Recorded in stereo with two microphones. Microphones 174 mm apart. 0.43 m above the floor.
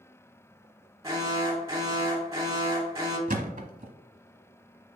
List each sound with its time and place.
1.0 s an alarm: 20° right (ahead or behind), 1.8 m
3.3 s a thud: 55° right (ahead or behind), 1.0 m